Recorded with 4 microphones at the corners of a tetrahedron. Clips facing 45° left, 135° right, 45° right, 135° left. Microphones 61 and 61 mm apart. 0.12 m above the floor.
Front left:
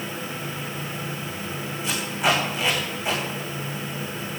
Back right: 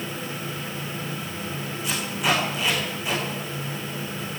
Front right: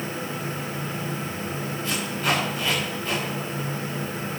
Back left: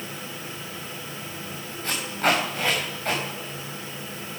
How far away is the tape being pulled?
About 6 m.